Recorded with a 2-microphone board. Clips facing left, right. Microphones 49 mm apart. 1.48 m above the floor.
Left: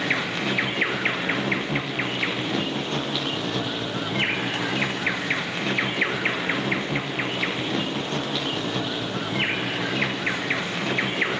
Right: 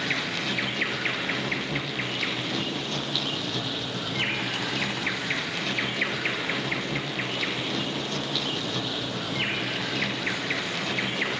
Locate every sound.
0.0 s an insect: 25° left (ahead or behind), 0.7 m